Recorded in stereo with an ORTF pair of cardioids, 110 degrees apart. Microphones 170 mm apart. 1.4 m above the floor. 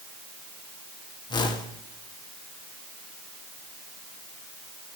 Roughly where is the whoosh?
Ahead left.